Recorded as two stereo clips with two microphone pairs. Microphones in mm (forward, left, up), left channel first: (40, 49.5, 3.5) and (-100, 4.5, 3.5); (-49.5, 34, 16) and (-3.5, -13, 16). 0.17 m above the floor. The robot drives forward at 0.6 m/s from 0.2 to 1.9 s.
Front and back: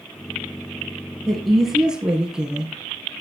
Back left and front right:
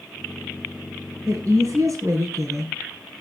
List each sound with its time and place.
1.3 s a woman speaking: 70° right, 3 m; by 2.7 s 80° right, 2.5 m